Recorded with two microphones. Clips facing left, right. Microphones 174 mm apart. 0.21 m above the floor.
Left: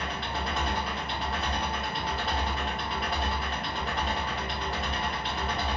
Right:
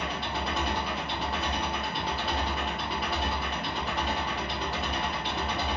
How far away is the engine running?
About 1.3 m.